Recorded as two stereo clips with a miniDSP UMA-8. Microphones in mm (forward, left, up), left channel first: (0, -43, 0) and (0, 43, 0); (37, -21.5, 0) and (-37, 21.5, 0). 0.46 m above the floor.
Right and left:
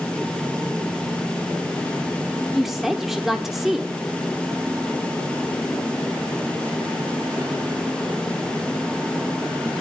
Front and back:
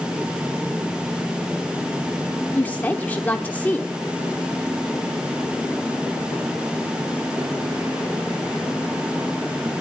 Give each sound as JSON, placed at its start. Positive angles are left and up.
{"t": 2.5, "sound": "a woman speaking", "azimuth_deg": 5, "distance_m": 1.1}